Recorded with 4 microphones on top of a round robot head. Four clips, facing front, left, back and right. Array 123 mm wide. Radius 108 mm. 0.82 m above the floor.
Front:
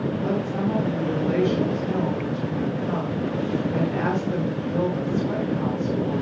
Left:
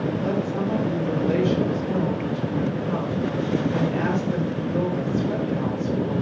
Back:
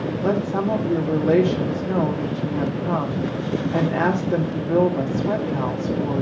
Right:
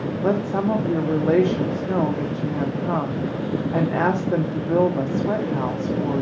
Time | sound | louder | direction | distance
0.2 | a woman speaking | right 3 dB, back 6 dB | 125° right | 1.6 m